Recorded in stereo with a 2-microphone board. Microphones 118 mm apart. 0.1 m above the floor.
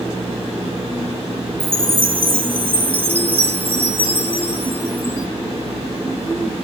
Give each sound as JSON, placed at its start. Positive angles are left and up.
{"t": 1.6, "sound": "a chime", "side_deg": -20, "distance_m": 1.3}